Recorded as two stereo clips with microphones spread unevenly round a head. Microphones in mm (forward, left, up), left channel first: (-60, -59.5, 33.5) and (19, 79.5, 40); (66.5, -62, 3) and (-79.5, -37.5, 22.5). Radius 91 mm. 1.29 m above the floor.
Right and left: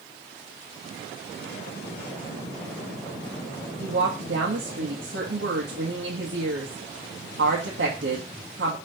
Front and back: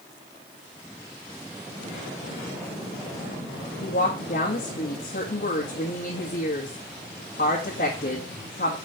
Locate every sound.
3.8 s a woman speaking: 40° left, 1.5 m